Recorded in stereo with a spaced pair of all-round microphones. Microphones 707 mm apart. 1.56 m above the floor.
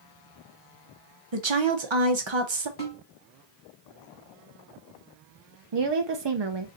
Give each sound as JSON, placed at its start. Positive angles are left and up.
{"t": 1.3, "sound": "a woman speaking", "side_deg": -40, "distance_m": 0.9}
{"t": 2.8, "sound": "a snare drum", "side_deg": 55, "distance_m": 2.5}
{"t": 5.7, "sound": "a woman speaking", "side_deg": -40, "distance_m": 0.6}